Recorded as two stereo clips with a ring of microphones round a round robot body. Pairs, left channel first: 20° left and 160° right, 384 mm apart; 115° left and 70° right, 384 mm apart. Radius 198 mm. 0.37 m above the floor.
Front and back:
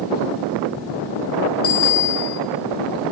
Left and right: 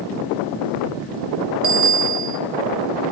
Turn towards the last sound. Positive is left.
turn(degrees=-35)